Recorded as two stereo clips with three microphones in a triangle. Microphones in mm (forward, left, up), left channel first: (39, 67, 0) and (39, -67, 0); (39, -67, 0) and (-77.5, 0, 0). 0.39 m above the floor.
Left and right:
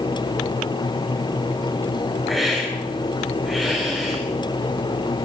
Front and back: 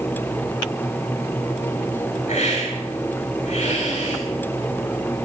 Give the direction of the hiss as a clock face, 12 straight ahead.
12 o'clock.